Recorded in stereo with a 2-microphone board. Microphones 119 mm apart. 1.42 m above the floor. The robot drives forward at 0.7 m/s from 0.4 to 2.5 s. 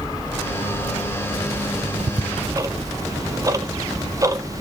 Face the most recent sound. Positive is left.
turn(degrees=-30)  # may be behind; listen again after turning